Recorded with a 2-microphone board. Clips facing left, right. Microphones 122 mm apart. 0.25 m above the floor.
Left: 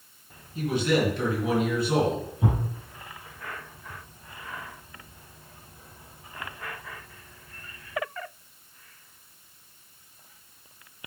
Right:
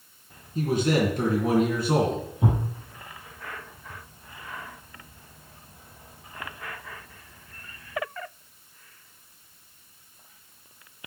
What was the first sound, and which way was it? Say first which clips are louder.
A man speaking: right 1 dB; 45° right (ahead or behind).